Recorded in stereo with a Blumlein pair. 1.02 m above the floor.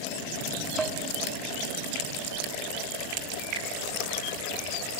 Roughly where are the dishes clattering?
Ahead.